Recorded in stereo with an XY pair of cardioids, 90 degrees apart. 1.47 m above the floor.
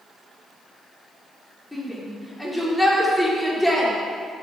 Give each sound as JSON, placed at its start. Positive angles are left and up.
{"t": 1.7, "sound": "a shout", "azimuth_deg": 10, "distance_m": 5.0}